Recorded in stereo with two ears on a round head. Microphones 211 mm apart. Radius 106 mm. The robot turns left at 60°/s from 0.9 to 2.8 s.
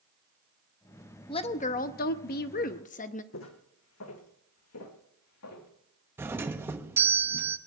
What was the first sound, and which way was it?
A woman speaking, 145° left.